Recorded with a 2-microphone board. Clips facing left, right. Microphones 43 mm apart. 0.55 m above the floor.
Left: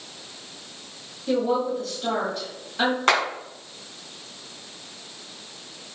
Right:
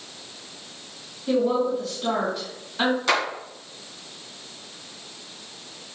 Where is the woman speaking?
10° left (ahead or behind), 3 m.